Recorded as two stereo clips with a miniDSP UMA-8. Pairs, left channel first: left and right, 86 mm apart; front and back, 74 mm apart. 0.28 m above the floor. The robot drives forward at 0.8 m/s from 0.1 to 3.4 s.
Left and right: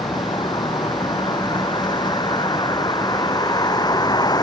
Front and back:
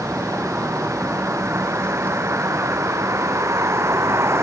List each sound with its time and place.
0.0 s a vehicle: 115° left; by 4.5 s 130° left